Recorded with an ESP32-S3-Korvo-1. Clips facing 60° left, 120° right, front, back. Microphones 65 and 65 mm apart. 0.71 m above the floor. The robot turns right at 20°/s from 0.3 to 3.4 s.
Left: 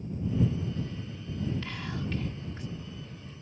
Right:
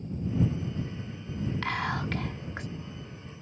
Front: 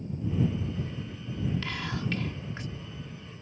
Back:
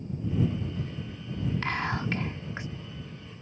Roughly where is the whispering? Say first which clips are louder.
Right 6 dB, back 4 dB; behind right.